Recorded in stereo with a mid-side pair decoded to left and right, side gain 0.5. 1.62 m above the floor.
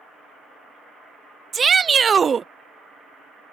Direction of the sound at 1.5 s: 35° right.